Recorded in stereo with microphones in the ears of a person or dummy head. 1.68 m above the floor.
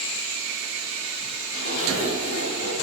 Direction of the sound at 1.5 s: 40° left (ahead or behind).